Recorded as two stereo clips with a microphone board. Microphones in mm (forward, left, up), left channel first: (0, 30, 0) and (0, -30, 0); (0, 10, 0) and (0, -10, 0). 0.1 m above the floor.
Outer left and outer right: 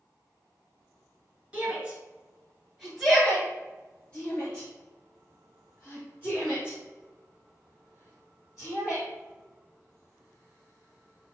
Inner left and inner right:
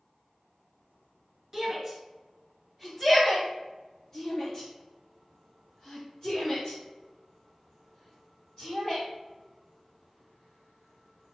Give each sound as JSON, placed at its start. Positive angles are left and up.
{"t": 1.5, "sound": "a shout", "side_deg": -20, "distance_m": 1.8}